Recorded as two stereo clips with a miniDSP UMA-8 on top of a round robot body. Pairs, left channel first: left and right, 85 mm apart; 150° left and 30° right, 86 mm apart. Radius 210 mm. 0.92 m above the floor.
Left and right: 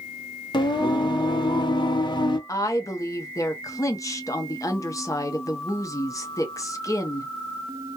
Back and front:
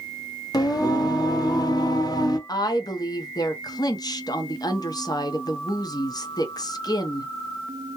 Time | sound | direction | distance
0.5 | singing | 110° left | 0.7 m
2.5 | a woman speaking | 130° left | 0.7 m